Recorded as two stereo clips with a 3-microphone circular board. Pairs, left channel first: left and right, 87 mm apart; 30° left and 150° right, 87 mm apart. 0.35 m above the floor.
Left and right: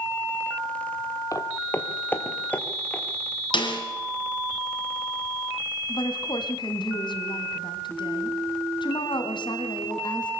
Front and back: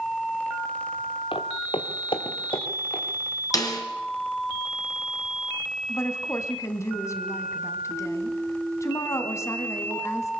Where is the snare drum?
75° left, 3.5 m.